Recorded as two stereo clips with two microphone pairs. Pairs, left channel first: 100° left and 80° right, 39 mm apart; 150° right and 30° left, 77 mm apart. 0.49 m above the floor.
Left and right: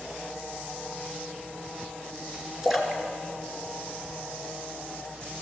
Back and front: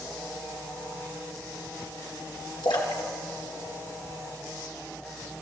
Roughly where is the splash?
Behind.